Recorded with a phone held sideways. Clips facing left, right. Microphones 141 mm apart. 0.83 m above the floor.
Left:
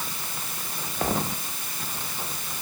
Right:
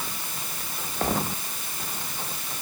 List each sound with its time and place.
Only background noise.